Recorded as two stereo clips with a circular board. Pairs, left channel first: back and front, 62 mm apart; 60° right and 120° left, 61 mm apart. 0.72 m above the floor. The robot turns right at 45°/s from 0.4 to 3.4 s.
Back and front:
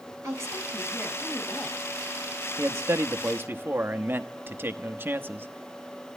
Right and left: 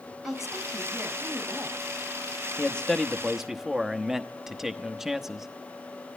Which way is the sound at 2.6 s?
Straight ahead.